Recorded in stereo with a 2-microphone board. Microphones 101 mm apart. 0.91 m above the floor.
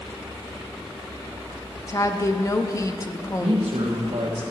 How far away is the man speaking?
About 1.3 m.